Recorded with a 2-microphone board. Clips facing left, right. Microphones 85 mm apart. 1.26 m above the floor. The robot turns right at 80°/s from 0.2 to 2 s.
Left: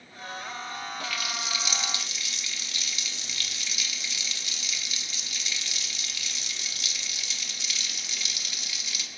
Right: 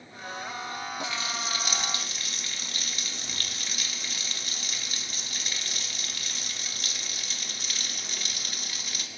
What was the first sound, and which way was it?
A running tap, 155° right.